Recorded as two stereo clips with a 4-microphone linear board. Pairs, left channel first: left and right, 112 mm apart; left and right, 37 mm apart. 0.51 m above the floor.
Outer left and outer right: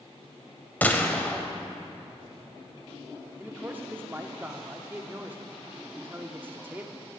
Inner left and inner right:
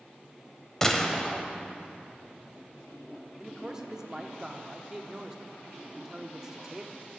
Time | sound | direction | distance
0.8 | a gunshot | 15° left (ahead or behind) | 0.9 m
3.4 | a man speaking | 20° right (ahead or behind) | 0.8 m